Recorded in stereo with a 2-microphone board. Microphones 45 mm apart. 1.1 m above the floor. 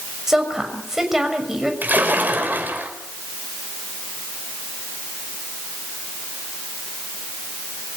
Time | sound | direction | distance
0.3 | a woman speaking | 10° right (ahead or behind) | 6.5 m
1.8 | a splash | 40° right (ahead or behind) | 5.5 m